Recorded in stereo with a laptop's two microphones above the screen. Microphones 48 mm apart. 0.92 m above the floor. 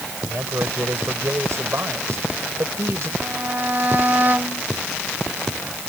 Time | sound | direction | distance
0.2 | a man speaking | 65° right (ahead or behind) | ?
3.2 | a violin | 40° right (ahead or behind) | ?